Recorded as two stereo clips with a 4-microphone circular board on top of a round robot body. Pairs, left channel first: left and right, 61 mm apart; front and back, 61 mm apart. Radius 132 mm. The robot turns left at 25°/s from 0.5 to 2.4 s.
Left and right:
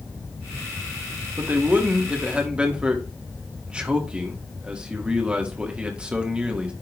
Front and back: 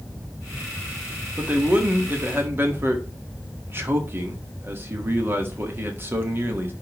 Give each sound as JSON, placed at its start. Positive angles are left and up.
{"t": 1.4, "sound": "a man speaking", "azimuth_deg": -125, "distance_m": 1.6}